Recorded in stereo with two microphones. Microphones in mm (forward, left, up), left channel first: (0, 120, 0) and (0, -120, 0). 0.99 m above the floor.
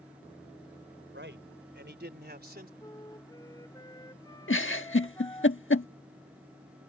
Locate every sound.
1.1 s a man speaking: 50° right (ahead or behind); by 2.7 s 40° right (ahead or behind)
2.8 s a flute: 15° left (ahead or behind)
4.5 s a giggle: 55° left (ahead or behind)